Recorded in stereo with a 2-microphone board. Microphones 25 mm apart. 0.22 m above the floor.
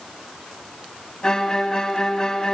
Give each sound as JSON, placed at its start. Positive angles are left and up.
{"t": 1.2, "sound": "a violin", "side_deg": 25, "distance_m": 1.6}